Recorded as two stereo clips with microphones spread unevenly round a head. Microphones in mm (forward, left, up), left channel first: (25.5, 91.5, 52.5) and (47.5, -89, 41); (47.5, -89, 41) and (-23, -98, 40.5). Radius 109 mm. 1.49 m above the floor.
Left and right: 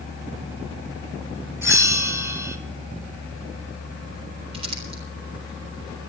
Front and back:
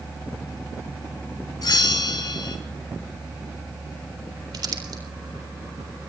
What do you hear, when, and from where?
1.6 s a bell: 5° right, 3.5 m
4.5 s crumpling: 145° right, 4 m